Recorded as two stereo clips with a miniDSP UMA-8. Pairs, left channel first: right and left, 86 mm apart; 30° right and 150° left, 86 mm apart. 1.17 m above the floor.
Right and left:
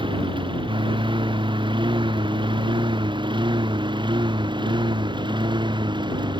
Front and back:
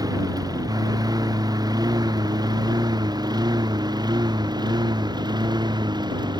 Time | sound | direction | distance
0.0 | a lawn mower | 110° left | ?